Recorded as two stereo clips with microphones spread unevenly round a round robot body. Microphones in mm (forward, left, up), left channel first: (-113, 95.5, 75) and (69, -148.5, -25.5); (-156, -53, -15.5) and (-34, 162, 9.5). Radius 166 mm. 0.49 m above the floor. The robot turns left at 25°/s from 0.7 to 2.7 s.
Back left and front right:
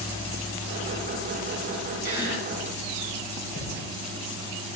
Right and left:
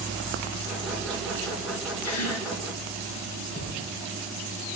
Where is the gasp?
130° right, 3 m; by 2.5 s 145° right, 3 m.